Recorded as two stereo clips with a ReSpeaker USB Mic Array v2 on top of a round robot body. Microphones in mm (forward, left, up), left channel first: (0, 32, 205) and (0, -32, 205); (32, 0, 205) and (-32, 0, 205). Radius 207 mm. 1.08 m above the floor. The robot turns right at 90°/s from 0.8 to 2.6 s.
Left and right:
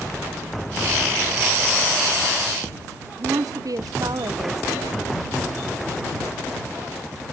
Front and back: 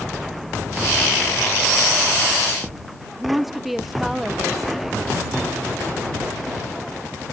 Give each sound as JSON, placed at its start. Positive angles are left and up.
{"t": 3.2, "sound": "a woman speaking", "azimuth_deg": -95}